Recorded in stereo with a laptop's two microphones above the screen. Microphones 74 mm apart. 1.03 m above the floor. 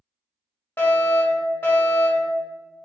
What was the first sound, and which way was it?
A fire alarm, 30° left (ahead or behind).